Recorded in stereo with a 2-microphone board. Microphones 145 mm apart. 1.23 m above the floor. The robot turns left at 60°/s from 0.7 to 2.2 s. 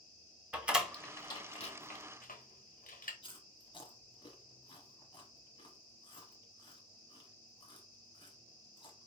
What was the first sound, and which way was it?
A door slam, 10° right (ahead or behind).